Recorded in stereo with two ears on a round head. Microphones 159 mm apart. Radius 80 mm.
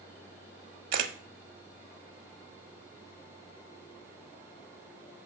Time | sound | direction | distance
0.9 | a camera shutter | 55° right (ahead or behind) | 1.2 m